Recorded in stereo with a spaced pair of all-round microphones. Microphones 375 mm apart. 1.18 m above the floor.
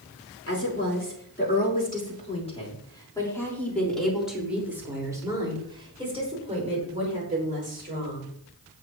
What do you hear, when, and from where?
0.5 s a woman speaking: 35° left (ahead or behind), 4.5 m; by 8.3 s 25° right (ahead or behind), 7.5 m